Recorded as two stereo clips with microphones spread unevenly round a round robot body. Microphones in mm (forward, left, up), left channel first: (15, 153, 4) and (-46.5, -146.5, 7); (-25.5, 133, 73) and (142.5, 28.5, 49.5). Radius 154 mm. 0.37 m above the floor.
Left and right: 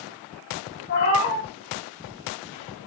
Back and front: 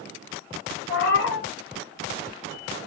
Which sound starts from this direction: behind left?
A cat meowing, at 0.9 s.